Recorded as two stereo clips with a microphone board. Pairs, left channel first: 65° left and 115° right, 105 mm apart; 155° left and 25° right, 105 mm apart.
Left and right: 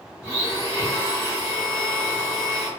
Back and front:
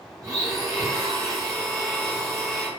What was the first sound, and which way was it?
A blender, 25° left.